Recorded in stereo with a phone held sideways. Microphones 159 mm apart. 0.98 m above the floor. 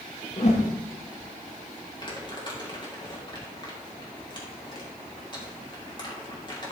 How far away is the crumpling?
About 2.5 m.